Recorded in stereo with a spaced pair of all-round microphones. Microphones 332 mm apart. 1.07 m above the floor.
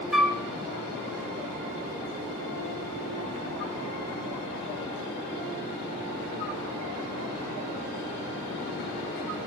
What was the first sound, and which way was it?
A flute, centre (ahead or behind).